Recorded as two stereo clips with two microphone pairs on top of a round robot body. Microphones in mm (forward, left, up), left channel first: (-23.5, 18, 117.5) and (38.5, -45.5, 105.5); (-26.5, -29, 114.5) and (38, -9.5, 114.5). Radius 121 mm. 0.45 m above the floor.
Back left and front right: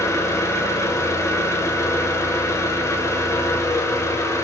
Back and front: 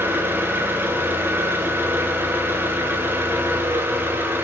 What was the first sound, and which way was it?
An engine running, 75° left.